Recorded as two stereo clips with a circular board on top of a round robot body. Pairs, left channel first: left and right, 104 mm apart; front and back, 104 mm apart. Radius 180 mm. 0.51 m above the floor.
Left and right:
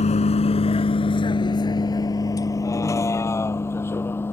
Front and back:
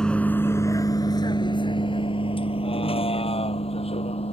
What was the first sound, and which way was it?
A vehicle, 85° left.